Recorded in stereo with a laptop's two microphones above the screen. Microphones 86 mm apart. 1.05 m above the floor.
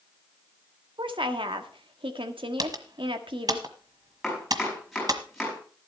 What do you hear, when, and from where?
1.0 s a woman speaking: 80° right, 1.6 m
2.6 s typing on a keyboard: 50° right (ahead or behind), 1.3 m
4.2 s chopping: centre (ahead or behind), 5 m